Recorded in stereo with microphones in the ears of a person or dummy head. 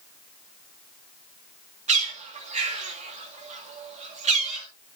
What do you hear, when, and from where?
1.9 s a bird: 40° right (ahead or behind), 1.9 m